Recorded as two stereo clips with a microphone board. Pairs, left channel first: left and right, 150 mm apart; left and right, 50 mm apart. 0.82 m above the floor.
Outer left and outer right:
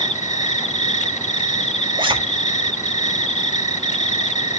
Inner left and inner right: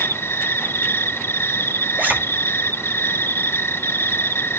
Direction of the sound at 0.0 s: 50° left (ahead or behind).